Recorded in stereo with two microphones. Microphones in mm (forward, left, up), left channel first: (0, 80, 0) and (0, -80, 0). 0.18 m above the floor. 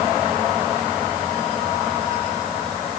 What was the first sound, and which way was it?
Only background noise.